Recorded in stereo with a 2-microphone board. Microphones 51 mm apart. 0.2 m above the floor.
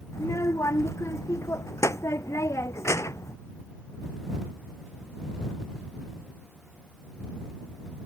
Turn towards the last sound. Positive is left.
turn(degrees=75)  # may be behind; listen again after turning